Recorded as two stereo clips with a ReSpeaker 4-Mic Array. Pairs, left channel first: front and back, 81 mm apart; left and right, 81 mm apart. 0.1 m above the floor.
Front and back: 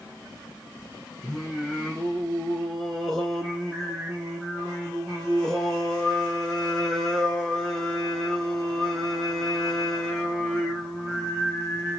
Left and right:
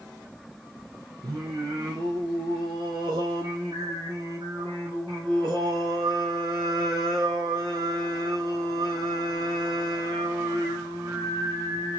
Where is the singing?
80° right, 2.5 m.